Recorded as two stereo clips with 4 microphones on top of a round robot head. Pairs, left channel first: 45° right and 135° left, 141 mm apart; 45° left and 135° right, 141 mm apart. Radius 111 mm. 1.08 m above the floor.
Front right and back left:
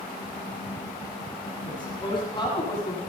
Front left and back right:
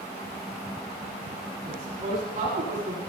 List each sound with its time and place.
1.6 s a woman speaking: 100° right, 8 m